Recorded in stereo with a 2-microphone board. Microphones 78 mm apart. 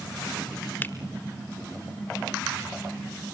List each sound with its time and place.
0.8 s a finger snap: 20° left (ahead or behind), 1.6 m